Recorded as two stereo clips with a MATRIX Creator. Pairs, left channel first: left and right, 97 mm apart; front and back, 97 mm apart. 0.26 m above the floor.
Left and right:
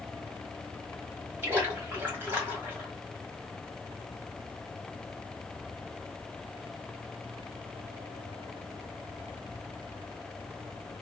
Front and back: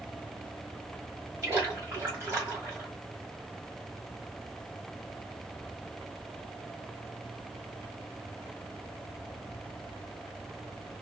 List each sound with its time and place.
1.4 s a splash: 140° right, 1.8 m